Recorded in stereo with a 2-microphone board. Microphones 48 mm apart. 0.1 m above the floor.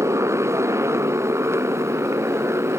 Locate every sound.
0.0 s a motorcycle: 75° right (ahead or behind); by 2.8 s 65° right (ahead or behind)